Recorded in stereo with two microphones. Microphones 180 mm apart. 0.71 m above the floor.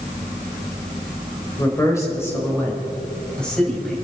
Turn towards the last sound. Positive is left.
turn(degrees=0)  # may be behind; listen again after turning